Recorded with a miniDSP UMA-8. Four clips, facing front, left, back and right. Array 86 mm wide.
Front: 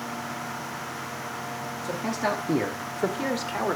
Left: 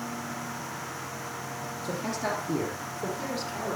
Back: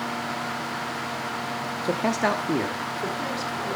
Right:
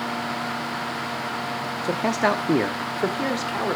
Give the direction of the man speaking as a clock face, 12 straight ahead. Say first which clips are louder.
Right 10 dB, back 4 dB; 5 o'clock.